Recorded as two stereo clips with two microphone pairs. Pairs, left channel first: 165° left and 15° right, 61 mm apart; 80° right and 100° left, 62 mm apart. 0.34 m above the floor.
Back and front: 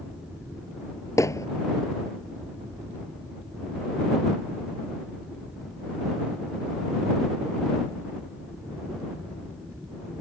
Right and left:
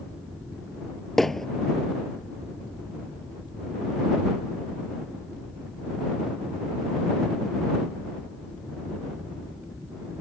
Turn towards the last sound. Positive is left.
turn(degrees=-165)